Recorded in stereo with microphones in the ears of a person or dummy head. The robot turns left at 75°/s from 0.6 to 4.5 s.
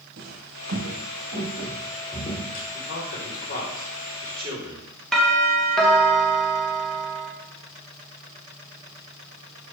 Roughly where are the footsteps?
Right.